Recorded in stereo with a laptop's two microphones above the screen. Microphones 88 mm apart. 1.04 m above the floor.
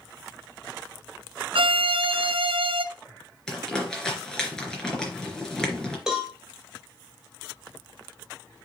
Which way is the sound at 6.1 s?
5° right (ahead or behind).